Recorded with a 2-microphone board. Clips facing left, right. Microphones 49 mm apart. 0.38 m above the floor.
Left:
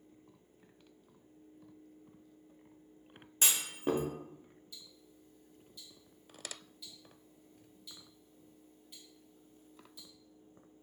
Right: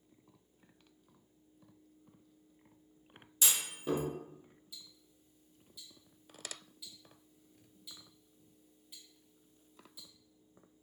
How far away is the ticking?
About 0.7 m.